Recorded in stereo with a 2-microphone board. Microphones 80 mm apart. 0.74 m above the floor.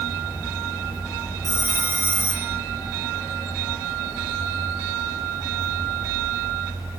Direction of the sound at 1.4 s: 35° right (ahead or behind).